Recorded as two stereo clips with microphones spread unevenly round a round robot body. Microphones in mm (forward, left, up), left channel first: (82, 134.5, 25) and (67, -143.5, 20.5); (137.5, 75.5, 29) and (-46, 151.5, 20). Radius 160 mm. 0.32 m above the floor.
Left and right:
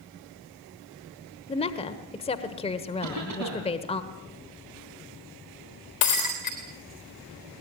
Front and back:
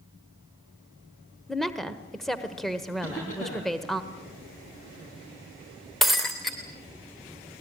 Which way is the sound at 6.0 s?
65° left.